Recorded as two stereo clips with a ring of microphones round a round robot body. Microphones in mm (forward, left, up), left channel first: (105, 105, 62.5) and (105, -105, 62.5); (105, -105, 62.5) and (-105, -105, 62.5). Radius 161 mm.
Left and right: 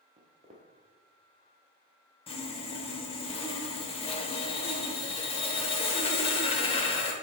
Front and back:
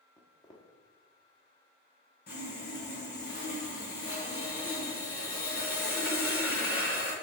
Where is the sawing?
40° left, 0.8 m.